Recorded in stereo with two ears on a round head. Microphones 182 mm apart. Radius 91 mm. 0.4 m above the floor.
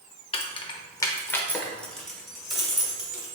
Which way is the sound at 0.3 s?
25° left (ahead or behind).